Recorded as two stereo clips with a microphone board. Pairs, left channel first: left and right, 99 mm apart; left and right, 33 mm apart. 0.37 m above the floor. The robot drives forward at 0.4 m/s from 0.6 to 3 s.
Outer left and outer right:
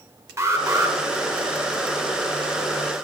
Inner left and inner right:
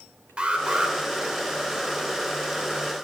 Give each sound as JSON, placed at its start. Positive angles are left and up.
{"t": 0.4, "sound": "an alarm", "side_deg": -30, "distance_m": 0.9}